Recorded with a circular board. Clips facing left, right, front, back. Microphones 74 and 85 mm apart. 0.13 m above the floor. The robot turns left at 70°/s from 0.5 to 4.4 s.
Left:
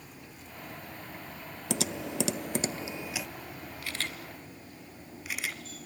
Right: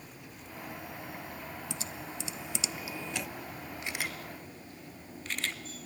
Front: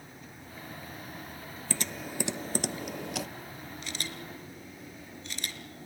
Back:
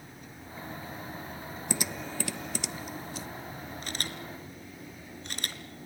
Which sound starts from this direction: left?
Typing on a keyboard, at 1.7 s.